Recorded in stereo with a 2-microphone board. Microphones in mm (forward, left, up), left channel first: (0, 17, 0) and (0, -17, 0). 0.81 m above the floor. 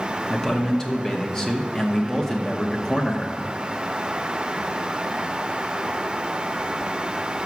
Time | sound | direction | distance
0.3 | a man speaking | 15° left (ahead or behind) | 0.8 m